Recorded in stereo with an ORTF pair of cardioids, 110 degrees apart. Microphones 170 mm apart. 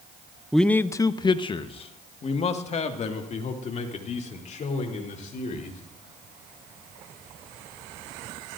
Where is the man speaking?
Straight ahead, 0.6 m; by 5.8 s 50° left, 4.5 m.